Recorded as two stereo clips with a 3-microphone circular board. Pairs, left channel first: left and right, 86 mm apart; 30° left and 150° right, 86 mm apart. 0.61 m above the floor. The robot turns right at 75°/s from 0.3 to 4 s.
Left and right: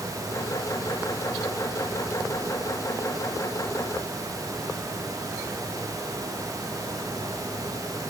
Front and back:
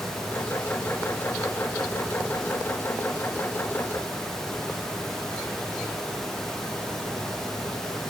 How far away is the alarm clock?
No alarm clock in this recording.